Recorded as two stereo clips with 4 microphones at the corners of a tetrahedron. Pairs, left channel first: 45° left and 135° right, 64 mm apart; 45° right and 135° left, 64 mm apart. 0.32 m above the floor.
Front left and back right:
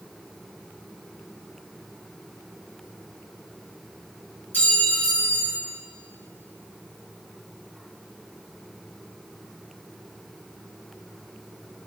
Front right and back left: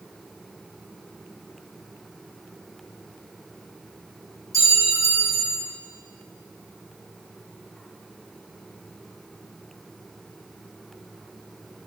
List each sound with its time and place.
4.5 s a clink: 105° left, 3 m